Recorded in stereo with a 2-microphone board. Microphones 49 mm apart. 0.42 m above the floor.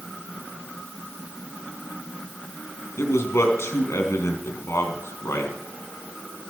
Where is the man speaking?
75° left (ahead or behind), 3 m.